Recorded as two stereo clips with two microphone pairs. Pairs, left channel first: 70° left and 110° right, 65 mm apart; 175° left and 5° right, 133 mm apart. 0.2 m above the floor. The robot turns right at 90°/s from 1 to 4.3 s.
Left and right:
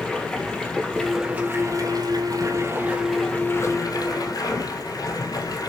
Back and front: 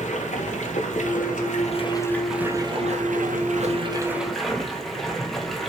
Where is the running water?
145° left, 2 m; by 5.7 s 85° left, 2 m.